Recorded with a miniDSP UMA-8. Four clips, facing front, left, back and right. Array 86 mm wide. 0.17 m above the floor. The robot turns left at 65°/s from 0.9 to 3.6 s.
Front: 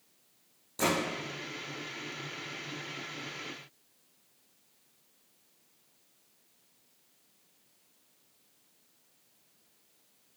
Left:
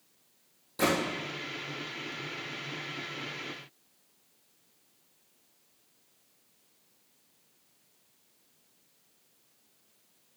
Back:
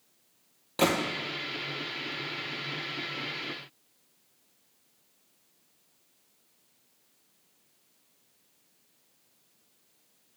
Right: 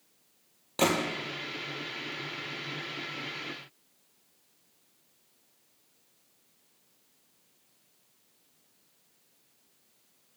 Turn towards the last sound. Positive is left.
turn(degrees=45)